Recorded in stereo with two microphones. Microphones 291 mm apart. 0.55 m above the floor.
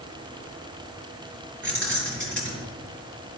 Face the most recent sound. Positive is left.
turn(degrees=-40)  # may be behind; listen again after turning